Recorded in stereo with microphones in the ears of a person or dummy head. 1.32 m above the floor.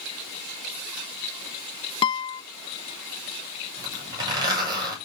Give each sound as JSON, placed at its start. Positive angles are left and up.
{"t": 2.0, "sound": "a guitar", "side_deg": 25, "distance_m": 0.6}
{"t": 3.8, "sound": "a zipper", "side_deg": -20, "distance_m": 7.5}